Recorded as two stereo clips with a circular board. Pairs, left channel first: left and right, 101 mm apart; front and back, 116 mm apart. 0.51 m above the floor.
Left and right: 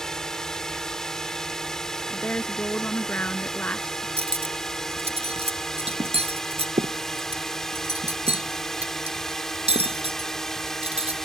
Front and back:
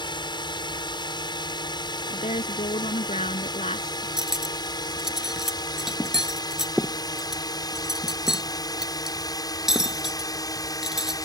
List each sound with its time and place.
0.0 s a drone: 10° left; by 11.2 s 5° left
2.1 s a woman speaking: 15° left
4.2 s cutlery clinking: 95° right